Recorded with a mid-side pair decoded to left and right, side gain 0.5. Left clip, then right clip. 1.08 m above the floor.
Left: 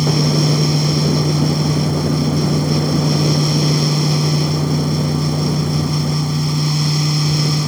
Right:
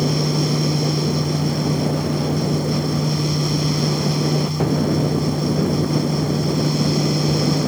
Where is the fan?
30° left.